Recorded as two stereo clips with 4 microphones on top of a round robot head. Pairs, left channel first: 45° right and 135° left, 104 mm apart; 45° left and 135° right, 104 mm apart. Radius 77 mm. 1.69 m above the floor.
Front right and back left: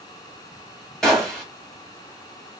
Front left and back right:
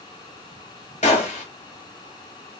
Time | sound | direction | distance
1.0 | a gunshot | 40° left | 1.4 m